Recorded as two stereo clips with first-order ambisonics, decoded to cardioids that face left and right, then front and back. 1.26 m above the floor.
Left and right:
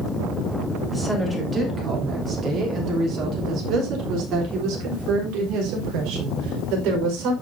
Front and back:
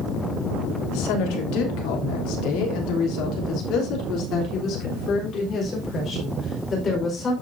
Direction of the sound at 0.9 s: 5° right.